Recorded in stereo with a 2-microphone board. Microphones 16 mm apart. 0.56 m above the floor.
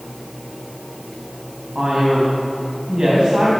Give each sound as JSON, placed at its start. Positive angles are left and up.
{"t": 1.8, "sound": "a man speaking", "side_deg": -75, "distance_m": 4.0}